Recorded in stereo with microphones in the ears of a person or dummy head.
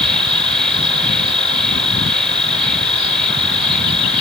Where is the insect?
5° left (ahead or behind).